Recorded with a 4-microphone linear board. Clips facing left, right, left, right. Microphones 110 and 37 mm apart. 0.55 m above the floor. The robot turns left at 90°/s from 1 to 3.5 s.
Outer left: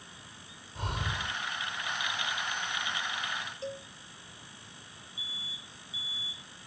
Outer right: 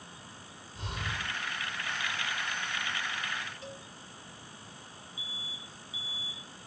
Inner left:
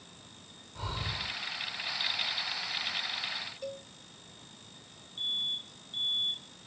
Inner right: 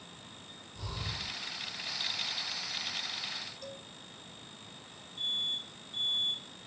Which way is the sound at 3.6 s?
30° left (ahead or behind).